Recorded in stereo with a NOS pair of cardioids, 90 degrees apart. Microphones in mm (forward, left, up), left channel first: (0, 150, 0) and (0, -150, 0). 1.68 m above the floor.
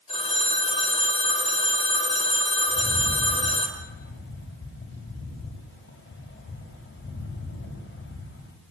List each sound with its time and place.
0.1 s a phone ringing: 20° left, 5 m
2.7 s a rattle: 35° left, 8 m